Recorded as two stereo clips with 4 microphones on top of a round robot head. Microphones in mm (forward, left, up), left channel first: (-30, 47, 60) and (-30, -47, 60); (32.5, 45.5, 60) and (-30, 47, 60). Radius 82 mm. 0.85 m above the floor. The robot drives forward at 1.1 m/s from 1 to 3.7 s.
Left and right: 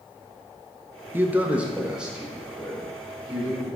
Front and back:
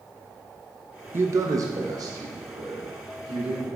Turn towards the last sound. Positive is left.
turn(degrees=-175)